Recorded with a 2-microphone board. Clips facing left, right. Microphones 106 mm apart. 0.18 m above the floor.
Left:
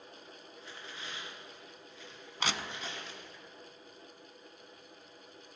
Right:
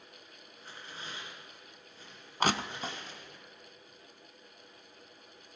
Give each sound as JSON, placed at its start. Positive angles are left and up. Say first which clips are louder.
{"t": 0.6, "sound": "tearing paper", "louder": "right 1 dB", "side_deg": -45, "distance_m": 2.5}
{"t": 2.4, "sound": "crushing", "louder": "right 6 dB", "side_deg": -45, "distance_m": 0.5}